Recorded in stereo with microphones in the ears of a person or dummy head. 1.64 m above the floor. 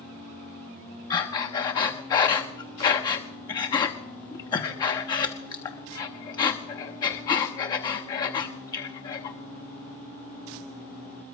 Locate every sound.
1.1 s breathing: 25° left (ahead or behind), 1.0 m